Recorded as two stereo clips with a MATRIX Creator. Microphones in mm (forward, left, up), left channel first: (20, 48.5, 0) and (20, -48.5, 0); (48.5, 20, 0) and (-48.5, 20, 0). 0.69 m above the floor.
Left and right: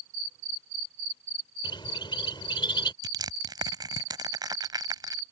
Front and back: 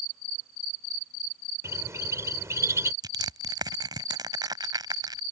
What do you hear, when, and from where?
1.6 s a bird: 120° left
3.0 s crushing: 135° right